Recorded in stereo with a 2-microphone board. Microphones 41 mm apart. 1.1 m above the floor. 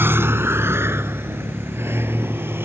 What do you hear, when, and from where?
0.0 s a vehicle: 65° right (ahead or behind); by 2.6 s 75° right (ahead or behind)